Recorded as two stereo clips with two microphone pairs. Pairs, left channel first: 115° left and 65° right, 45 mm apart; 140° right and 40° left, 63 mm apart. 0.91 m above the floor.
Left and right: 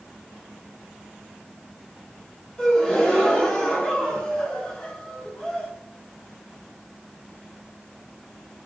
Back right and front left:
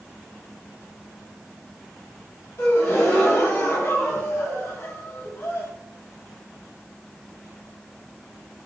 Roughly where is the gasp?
Behind.